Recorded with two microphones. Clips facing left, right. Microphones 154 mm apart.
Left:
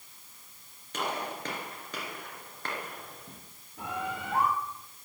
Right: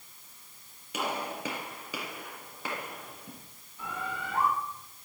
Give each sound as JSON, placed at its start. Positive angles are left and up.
{"t": 0.9, "sound": "a gunshot", "side_deg": -10, "distance_m": 3.0}
{"t": 3.8, "sound": "a bird", "side_deg": 75, "distance_m": 4.5}